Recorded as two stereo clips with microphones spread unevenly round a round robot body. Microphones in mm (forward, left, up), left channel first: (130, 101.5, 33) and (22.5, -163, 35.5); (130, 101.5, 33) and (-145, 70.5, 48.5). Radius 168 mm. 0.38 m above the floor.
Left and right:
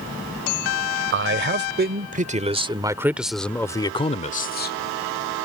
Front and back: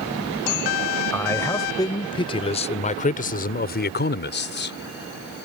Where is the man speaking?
75° right; by 5.5 s 45° left.